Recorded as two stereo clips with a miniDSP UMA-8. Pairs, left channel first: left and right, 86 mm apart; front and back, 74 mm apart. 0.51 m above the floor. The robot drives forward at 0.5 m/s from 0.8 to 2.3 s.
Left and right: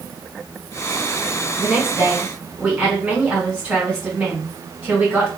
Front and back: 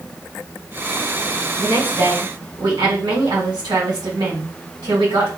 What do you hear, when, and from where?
1.6 s a woman speaking: 165° right, 2.5 m